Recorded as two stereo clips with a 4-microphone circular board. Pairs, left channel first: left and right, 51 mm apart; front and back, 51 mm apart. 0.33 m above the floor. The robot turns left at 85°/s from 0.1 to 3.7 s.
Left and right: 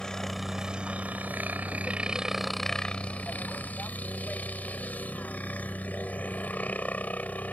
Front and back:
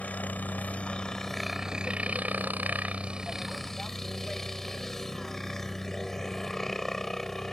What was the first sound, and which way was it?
A helicopter, 25° left.